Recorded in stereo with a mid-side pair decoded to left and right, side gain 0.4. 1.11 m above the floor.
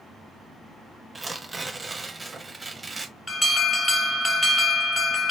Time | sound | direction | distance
1.1 | tearing paper | 25° right | 0.6 m
3.3 | an alarm | 15° left | 1.4 m